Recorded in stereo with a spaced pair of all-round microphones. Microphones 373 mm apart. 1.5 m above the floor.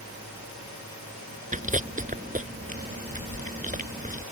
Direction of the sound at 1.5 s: 20° right (ahead or behind).